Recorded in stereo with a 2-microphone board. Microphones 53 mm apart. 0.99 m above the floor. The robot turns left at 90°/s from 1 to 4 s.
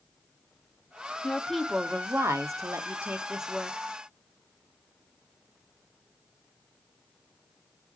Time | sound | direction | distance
1.2 | a woman speaking | 25° left | 0.7 m